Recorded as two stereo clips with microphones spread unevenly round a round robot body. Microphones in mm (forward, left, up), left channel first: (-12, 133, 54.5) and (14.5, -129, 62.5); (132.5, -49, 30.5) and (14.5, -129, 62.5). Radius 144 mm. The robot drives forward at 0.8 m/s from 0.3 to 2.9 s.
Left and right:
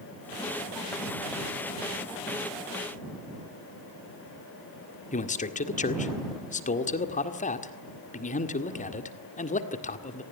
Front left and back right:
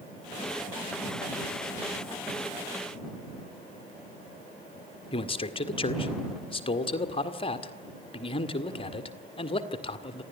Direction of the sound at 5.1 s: 45° left.